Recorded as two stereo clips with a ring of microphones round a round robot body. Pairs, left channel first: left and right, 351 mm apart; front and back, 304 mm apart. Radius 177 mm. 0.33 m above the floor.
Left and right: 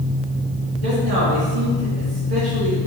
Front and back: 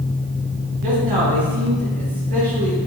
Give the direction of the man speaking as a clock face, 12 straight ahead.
4 o'clock.